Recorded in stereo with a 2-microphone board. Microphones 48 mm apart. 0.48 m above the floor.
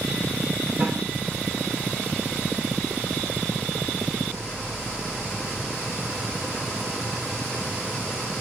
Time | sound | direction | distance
0.8 | a snare drum | 70° right (ahead or behind) | 2 m